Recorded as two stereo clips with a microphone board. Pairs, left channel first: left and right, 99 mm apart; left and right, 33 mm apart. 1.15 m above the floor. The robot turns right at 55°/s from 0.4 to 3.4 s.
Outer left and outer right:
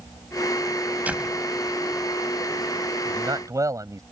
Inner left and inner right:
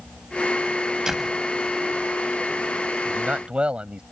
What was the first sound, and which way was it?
A door slam, 15° right (ahead or behind).